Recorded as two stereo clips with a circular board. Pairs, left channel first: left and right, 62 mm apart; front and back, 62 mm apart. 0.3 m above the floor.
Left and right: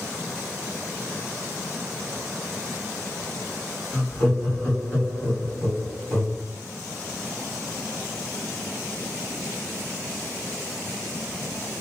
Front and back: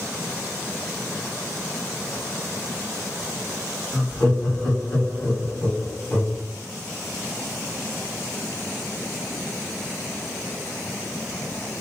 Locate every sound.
3.9 s laughter: 25° left, 1.8 m